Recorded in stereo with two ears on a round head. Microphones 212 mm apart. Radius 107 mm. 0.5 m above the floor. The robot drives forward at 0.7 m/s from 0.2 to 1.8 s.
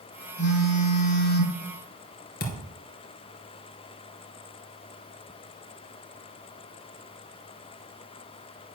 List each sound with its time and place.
0.4 s a phone buzzing: 60° left (ahead or behind), 3.5 m; by 1.6 s 65° left (ahead or behind), 3.5 m
2.4 s a thud: 40° left (ahead or behind), 2 m